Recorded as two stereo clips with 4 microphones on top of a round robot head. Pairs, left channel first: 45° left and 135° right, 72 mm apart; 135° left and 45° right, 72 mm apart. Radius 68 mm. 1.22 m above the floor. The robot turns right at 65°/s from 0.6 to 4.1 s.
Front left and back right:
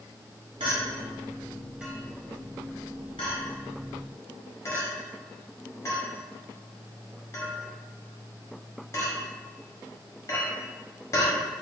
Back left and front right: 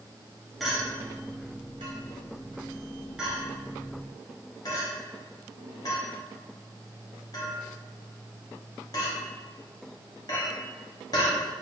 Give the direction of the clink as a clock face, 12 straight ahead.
5 o'clock.